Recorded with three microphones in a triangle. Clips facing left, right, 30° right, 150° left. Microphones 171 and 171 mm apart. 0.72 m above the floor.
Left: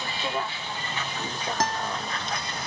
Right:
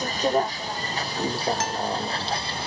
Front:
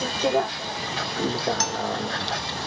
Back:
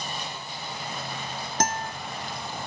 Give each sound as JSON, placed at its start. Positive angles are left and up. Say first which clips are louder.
{"t": 0.0, "sound": "a vehicle", "louder": "right 8 dB, front 15 dB", "azimuth_deg": -40}
{"t": 1.6, "sound": "a guitar", "louder": "right 1 dB, front 2 dB", "azimuth_deg": 130}